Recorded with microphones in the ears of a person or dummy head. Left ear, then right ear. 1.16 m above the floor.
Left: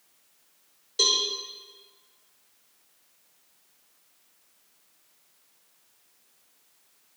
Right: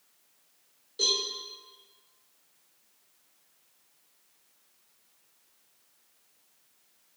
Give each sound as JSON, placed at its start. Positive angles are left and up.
{"t": 1.0, "sound": "a cowbell", "side_deg": 50, "distance_m": 1.5}